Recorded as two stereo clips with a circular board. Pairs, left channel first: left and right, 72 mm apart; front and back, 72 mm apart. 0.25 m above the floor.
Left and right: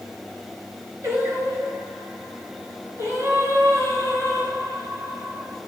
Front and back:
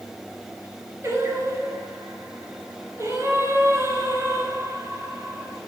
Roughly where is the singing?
Behind right.